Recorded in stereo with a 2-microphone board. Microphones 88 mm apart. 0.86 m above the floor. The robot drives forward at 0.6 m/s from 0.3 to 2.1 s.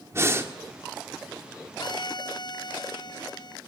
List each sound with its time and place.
0.1 s breathing: 30° right (ahead or behind), 1.7 m
1.8 s a violin: 55° left (ahead or behind), 0.5 m